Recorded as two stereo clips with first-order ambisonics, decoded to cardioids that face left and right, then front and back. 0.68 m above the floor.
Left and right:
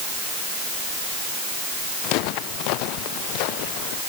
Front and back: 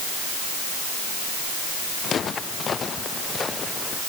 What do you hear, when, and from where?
2.0 s footsteps: 65° left; by 4.0 s 75° left